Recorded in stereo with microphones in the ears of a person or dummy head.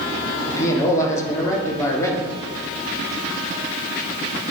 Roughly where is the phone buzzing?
No phone buzzing in this recording.